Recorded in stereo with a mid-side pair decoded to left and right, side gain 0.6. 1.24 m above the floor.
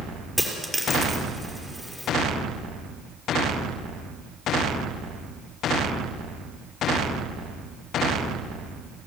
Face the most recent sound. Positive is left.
turn(degrees=10)